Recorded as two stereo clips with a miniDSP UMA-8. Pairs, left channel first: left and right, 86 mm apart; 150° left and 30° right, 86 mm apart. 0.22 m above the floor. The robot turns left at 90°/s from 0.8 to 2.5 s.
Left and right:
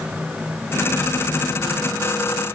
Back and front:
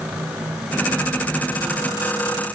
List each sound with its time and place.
Only background noise.